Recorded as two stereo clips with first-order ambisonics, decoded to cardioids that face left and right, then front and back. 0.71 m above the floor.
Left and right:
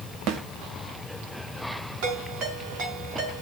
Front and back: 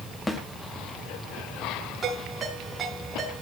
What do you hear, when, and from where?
0.3 s a snare drum: 80° right, 1.6 m
2.0 s a ringtone: 110° right, 6.5 m